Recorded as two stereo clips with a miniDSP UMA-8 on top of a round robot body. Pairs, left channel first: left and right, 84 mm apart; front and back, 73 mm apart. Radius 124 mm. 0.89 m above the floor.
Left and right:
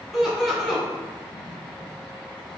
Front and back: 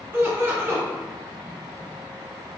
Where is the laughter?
175° right, 0.9 m.